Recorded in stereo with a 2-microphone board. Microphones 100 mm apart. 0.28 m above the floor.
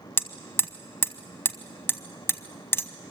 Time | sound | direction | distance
0.2 | hammering | 25° left (ahead or behind) | 0.9 m